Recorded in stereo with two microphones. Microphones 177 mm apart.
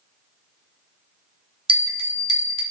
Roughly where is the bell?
Right.